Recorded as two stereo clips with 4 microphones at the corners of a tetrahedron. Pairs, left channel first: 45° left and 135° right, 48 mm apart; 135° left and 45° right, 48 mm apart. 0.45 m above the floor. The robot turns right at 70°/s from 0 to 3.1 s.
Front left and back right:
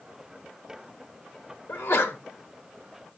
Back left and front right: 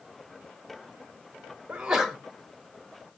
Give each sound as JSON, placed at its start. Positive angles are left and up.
{"t": 1.7, "sound": "a sneeze", "azimuth_deg": 15, "distance_m": 1.3}